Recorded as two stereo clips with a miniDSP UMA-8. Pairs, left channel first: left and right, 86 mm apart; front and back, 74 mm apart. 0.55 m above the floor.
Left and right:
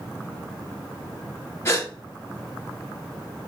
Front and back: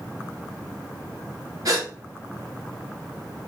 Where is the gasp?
150° left, 1.6 m.